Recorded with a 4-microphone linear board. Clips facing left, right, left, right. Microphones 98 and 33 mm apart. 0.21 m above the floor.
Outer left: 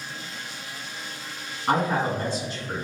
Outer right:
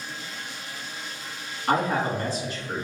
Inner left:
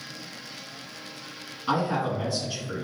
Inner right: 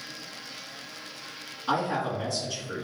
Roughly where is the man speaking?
Left.